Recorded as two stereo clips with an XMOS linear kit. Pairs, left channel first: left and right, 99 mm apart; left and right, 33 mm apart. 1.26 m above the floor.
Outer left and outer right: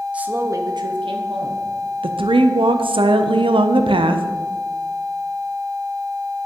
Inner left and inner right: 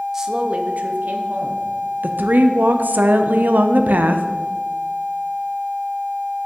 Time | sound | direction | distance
0.1 | a woman speaking | 10° right (ahead or behind) | 0.6 m
2.0 | a woman speaking | 60° right (ahead or behind) | 0.5 m